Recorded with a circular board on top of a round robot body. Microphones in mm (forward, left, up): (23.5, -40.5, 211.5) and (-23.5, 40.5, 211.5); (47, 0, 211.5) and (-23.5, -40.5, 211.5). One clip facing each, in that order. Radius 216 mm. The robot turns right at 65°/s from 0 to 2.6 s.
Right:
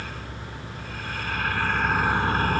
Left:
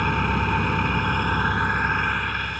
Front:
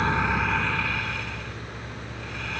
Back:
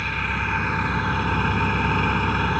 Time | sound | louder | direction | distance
0.0 | an engine running | left 14 dB, front 3 dB | 90° left | ?